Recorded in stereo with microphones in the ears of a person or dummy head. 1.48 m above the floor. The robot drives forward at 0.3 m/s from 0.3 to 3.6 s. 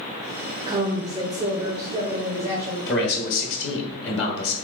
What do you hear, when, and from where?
0.7 s a woman speaking: 20° right (ahead or behind), 0.5 m; by 2.8 s 10° right (ahead or behind), 1.1 m
2.9 s a man speaking: 60° left (ahead or behind), 1.4 m; by 4.5 s 65° left (ahead or behind), 1.3 m